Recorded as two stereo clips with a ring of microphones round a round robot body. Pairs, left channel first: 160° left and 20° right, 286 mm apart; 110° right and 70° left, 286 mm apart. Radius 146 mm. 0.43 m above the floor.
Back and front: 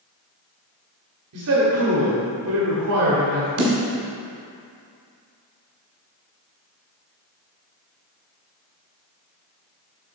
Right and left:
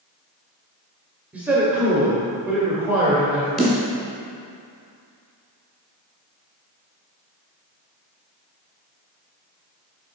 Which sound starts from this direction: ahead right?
A snare drum, at 3.6 s.